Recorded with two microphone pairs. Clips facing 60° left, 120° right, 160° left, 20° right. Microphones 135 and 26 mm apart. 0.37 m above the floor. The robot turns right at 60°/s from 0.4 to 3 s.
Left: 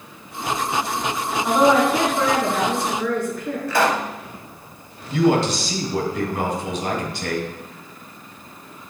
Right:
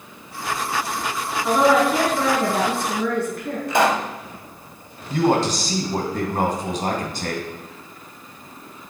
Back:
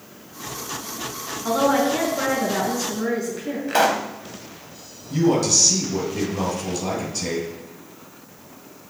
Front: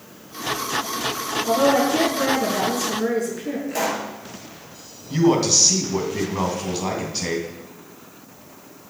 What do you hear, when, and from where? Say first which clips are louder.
1.4 s a woman speaking: even, front 1 dB; 140° left, 3.5 m; by 3.6 s 130° right, 3.5 m
3.7 s a pop: right 1 dB, back 7 dB; 175° left, 0.8 m
5.1 s a man speaking: left 1 dB, front 1 dB; 85° right, 3 m